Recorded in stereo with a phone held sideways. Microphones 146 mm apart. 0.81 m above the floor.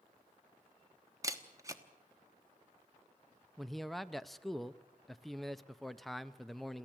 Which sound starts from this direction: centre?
A man speaking, at 3.6 s.